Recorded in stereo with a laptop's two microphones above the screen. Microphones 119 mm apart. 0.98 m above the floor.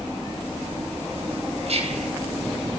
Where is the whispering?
65° right (ahead or behind), 5 m.